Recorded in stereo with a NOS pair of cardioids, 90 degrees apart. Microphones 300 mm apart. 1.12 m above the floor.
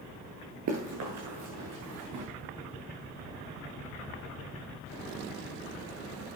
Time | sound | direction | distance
0.7 | running footsteps | 65° right | 6.5 m